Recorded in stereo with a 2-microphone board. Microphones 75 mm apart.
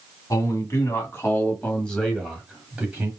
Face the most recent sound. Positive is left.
turn(degrees=-25)  # may be behind; listen again after turning